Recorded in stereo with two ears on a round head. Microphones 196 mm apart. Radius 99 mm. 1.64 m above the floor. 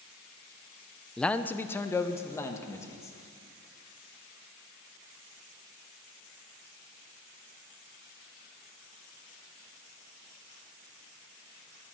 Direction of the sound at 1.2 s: 5° left (ahead or behind).